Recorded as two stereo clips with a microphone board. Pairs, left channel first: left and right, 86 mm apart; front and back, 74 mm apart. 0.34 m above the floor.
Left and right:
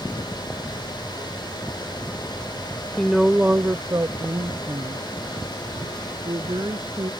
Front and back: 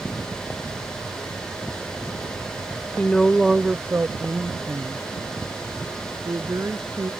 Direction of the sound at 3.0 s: 30° left.